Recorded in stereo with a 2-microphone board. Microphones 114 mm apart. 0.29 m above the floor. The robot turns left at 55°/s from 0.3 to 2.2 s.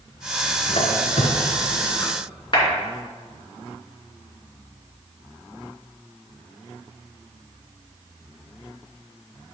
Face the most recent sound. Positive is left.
turn(degrees=45)  # may be behind; listen again after turning